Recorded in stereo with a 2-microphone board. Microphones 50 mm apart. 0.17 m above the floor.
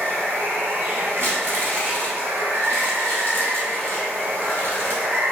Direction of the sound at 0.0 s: 55° right (ahead or behind).